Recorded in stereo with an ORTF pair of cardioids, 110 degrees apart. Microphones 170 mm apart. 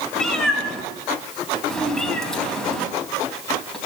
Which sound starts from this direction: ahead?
A cat meowing, at 0.1 s.